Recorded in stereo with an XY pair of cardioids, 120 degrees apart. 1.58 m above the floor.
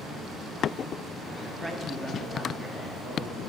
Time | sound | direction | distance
1.6 | a man speaking | straight ahead | 0.7 m